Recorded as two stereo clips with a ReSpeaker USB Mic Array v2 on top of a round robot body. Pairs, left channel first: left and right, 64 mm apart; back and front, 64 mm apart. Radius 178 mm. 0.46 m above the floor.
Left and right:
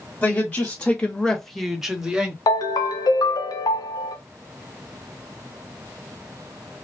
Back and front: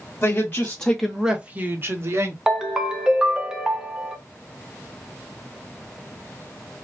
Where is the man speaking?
140° left, 1.5 m; by 2.4 s 15° right, 1.7 m.